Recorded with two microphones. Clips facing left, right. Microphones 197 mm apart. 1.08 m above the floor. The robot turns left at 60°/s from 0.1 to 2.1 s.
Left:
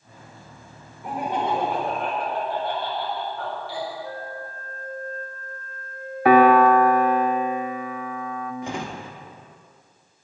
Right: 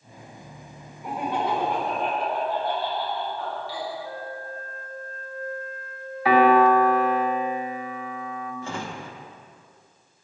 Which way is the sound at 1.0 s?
Straight behind.